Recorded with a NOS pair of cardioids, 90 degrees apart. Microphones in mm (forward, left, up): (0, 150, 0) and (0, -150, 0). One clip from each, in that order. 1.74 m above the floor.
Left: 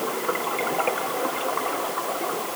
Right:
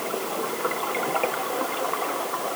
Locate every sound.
Only background noise.